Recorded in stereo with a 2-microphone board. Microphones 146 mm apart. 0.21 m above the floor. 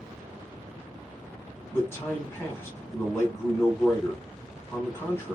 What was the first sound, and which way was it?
A man speaking, 15° left (ahead or behind).